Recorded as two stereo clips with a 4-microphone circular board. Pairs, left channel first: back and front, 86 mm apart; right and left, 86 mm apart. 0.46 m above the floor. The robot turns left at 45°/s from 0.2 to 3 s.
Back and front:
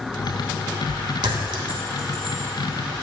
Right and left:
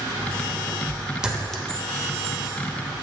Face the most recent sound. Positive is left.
turn(degrees=-70)